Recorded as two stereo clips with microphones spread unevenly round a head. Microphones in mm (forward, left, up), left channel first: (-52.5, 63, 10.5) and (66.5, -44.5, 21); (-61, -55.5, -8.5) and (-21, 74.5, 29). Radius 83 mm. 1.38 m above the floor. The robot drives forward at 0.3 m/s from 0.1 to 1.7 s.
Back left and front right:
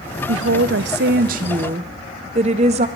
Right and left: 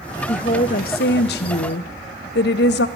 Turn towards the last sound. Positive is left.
turn(degrees=-95)